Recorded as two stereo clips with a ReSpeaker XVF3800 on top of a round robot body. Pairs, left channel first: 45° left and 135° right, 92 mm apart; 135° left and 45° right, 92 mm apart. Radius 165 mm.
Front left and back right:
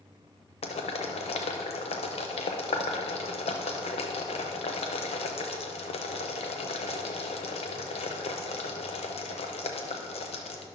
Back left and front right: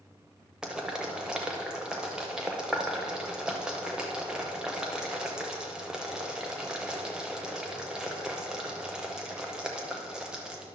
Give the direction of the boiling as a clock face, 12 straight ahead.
11 o'clock.